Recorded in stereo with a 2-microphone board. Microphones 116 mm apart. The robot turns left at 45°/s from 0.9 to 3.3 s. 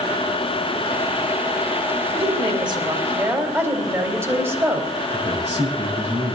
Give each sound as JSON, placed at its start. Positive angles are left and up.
{"t": 2.1, "sound": "a woman speaking", "azimuth_deg": -105, "distance_m": 2.0}
{"t": 5.1, "sound": "a man speaking", "side_deg": -70, "distance_m": 7.0}